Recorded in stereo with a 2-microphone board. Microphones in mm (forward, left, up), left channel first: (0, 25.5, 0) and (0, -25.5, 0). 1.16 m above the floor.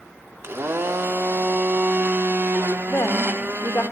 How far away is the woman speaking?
About 1.3 m.